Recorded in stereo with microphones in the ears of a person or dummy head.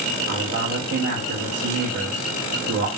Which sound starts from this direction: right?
A man speaking, at 0.3 s.